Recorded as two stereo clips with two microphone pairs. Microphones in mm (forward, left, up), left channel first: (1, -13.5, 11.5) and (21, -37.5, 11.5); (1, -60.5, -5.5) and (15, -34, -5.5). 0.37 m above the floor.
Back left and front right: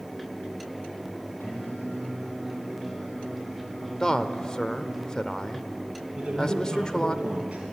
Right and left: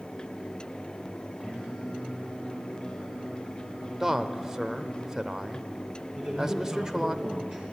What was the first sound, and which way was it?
Singing, 130° left.